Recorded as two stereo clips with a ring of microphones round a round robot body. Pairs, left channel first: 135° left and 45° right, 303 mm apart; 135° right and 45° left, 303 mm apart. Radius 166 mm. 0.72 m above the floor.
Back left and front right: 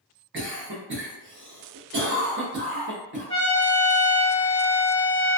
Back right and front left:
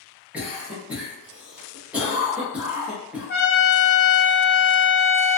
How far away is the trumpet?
About 1.5 m.